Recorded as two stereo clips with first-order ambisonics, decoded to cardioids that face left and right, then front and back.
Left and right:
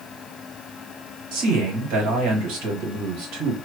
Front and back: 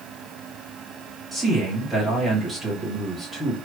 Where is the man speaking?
95° right, 2 m.